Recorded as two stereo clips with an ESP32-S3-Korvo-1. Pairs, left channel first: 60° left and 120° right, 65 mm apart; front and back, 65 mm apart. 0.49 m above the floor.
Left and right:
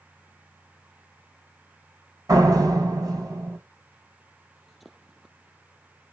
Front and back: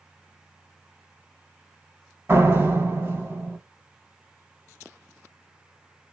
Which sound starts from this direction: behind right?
A door slam, at 2.3 s.